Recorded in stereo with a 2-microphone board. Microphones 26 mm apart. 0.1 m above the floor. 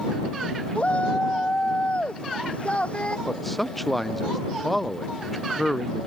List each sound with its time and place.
0.8 s a shout: 50° left (ahead or behind); by 3.2 s 45° left (ahead or behind)
3.3 s a man speaking: 5° left (ahead or behind)